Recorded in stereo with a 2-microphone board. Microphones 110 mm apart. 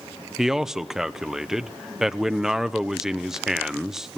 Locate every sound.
0.4 s a man speaking: 5° right (ahead or behind), 0.8 m